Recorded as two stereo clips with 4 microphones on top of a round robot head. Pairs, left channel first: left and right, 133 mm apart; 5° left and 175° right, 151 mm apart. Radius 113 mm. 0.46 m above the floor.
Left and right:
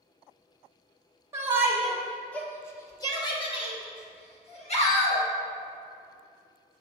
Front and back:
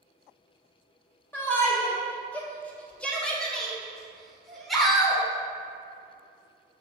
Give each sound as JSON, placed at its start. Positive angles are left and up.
{"t": 1.3, "sound": "a shout", "azimuth_deg": -50, "distance_m": 1.3}